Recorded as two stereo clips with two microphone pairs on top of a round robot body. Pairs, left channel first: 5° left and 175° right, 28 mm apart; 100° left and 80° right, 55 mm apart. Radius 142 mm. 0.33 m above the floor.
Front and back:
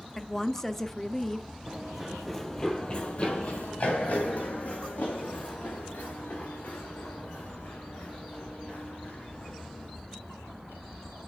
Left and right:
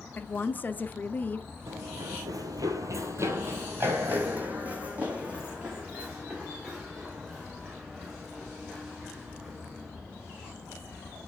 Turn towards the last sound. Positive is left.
turn(degrees=5)